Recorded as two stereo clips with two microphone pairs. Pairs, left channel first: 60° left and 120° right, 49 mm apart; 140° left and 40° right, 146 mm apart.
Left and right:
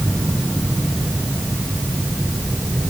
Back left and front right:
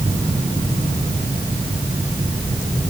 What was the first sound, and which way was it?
Only background noise.